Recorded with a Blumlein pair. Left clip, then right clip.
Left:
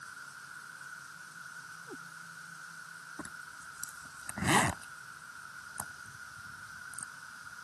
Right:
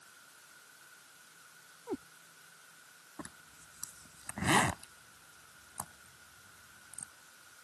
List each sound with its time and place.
0.0 s an insect: 30° left
1.9 s a cat meowing: 60° right
3.2 s a zipper: 5° left